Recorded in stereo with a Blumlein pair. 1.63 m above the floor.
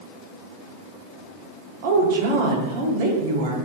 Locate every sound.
1.8 s a woman speaking: 50° right, 1.0 m